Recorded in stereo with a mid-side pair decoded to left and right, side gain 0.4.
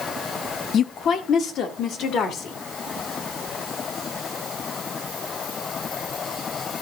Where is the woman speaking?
70° left, 1.0 m; by 2.6 s 80° left, 2.5 m.